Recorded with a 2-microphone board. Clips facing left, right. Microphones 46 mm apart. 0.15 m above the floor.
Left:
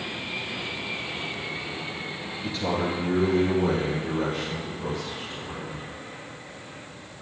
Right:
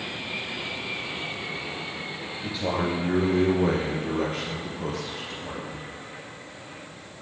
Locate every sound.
2.4 s a man speaking: centre (ahead or behind), 1.9 m; by 5.9 s 75° right (ahead or behind), 4 m